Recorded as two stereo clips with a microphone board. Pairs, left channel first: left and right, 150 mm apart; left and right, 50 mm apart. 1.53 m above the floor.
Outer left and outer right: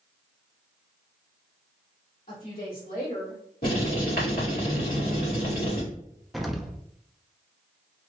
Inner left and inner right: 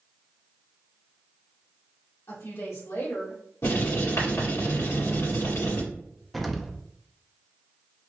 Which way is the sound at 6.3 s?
Centre (ahead or behind).